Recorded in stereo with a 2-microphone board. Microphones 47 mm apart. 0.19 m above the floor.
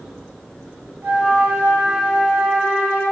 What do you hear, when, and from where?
1.0 s a flute: 45° right (ahead or behind), 2.0 m